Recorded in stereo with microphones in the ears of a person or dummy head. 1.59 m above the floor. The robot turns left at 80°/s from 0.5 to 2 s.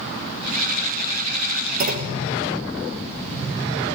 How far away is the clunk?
About 1.2 m.